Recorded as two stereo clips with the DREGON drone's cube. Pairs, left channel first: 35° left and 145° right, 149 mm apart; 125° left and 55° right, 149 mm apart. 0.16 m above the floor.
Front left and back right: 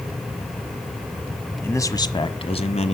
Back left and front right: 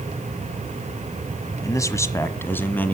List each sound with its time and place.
1.6 s a man speaking: 90° left, 1.1 m; by 3.0 s 50° left, 1.6 m